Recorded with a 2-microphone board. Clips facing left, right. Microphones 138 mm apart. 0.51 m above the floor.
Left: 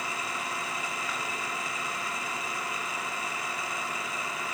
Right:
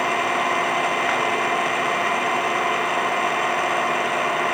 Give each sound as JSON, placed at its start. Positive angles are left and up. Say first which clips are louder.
{"t": 0.0, "sound": "an engine running", "louder": "right 14 dB", "side_deg": -70}